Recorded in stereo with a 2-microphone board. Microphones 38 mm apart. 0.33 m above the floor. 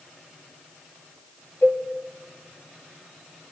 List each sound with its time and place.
1.6 s a cowbell: 50° left (ahead or behind), 2.5 m